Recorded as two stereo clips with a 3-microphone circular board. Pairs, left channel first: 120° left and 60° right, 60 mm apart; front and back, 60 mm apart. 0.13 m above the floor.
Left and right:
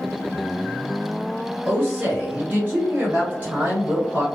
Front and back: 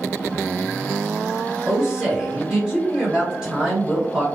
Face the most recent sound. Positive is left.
turn(degrees=-110)